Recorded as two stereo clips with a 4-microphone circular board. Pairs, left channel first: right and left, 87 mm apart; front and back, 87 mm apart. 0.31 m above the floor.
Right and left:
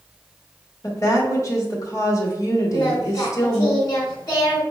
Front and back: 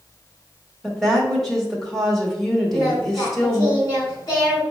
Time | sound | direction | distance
0.8 | a woman speaking | 85° right | 1.2 m
2.7 | singing | 50° right | 2 m